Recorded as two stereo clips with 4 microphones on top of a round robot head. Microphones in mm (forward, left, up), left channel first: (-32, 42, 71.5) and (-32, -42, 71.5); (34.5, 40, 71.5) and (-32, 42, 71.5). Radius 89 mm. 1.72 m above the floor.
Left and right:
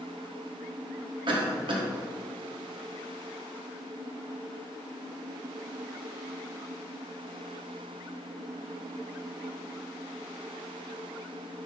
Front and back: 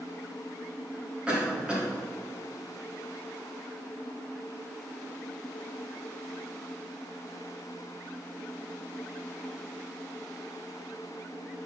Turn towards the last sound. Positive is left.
turn(degrees=-105)